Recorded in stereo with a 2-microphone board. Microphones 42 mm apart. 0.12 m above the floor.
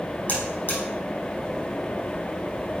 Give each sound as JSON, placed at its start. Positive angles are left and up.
{"t": 0.3, "sound": "a buzzer", "side_deg": 40, "distance_m": 3.5}